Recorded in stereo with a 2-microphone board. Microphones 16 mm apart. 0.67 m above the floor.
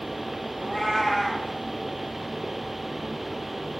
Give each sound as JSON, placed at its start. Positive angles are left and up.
{"t": 0.6, "sound": "a cat meowing", "side_deg": 20, "distance_m": 1.6}